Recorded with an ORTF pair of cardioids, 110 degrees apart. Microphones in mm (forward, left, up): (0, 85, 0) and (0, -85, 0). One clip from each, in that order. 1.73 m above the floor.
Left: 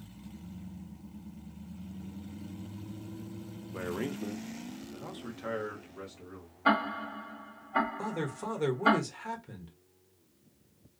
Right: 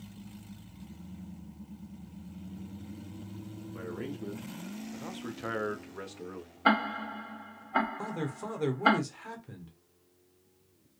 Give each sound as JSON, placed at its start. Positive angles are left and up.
{"t": 3.7, "sound": "a man speaking", "azimuth_deg": 40, "distance_m": 0.9}
{"t": 6.7, "sound": "ticking", "azimuth_deg": -25, "distance_m": 0.9}
{"t": 8.0, "sound": "a man speaking", "azimuth_deg": 5, "distance_m": 1.0}